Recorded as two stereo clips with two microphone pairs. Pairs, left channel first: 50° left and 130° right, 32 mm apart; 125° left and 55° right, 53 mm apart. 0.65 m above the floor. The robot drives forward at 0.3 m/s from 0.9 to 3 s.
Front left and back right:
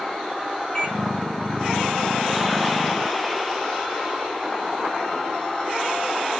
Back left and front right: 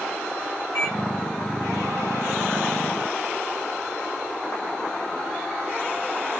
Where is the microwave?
105° left, 1.2 m; by 1.0 s 110° left, 1.2 m.